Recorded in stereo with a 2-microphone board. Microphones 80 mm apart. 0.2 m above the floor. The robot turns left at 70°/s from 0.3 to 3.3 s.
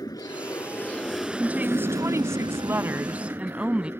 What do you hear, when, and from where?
0.0 s an aircraft: 65° left; by 4.0 s 145° right
1.4 s a woman speaking: 25° right; by 3.9 s 155° right